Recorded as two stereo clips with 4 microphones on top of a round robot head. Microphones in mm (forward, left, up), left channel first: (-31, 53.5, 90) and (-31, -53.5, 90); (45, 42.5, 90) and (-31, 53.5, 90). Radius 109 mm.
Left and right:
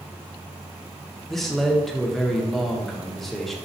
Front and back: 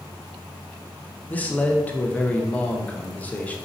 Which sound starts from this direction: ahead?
A man speaking, at 1.3 s.